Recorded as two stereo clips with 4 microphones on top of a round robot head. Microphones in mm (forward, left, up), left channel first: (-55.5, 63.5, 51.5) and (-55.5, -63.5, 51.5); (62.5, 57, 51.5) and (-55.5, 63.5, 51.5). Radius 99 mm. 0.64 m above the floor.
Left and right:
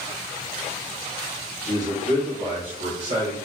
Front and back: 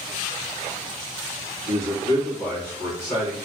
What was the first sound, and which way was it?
A man speaking, 85° right.